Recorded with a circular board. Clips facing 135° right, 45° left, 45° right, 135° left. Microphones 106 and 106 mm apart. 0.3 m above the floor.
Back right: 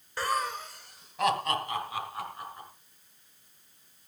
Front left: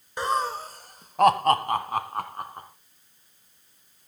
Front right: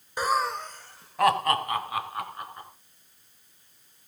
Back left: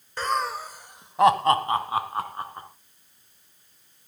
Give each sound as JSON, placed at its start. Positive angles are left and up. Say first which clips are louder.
{"t": 0.2, "sound": "laughter", "louder": "front left 4 dB, front right 1 dB", "azimuth_deg": 10, "distance_m": 0.9}